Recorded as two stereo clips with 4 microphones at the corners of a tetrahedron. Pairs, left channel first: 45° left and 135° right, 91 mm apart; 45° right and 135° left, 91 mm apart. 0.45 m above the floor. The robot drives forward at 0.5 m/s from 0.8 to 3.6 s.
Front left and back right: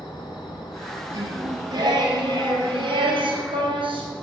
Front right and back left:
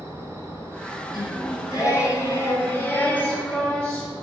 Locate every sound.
0.0 s an insect: 75° left, 1.2 m; by 4.2 s 130° left, 1.6 m
1.1 s singing: 85° right, 1.7 m; by 4.1 s 120° right, 2 m